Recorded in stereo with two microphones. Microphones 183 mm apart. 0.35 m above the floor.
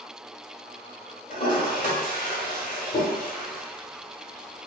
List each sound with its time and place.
1.3 s a toilet flushing: 45° left (ahead or behind), 1.0 m